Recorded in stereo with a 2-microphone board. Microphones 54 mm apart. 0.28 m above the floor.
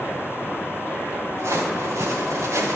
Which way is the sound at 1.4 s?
55° right (ahead or behind).